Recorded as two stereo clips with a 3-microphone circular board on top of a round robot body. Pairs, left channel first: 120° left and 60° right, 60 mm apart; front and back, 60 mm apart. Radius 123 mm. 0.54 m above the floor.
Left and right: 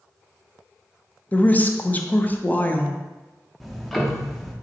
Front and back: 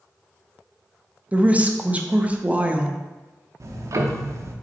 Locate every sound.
1.3 s a woman speaking: 145° left, 0.6 m
3.6 s ticking: 150° right, 0.6 m